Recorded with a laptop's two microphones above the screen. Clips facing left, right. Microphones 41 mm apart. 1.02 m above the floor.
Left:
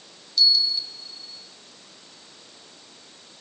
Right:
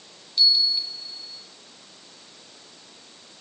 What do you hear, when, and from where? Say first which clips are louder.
0.4 s a bell: even; 30° right (ahead or behind), 2.5 m